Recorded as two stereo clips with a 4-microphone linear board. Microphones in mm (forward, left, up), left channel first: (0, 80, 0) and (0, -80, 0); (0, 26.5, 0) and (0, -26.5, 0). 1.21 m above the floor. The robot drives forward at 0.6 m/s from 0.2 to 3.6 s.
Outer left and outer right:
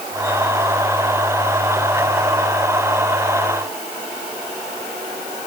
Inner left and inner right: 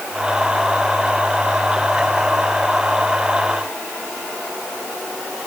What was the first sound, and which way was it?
Only background noise.